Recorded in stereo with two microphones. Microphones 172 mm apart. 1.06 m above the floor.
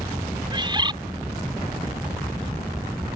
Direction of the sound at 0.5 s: 30° right (ahead or behind).